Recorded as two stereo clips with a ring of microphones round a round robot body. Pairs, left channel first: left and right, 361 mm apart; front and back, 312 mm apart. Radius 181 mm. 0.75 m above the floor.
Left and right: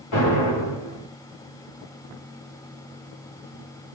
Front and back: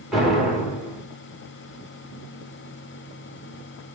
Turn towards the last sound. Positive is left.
turn(degrees=90)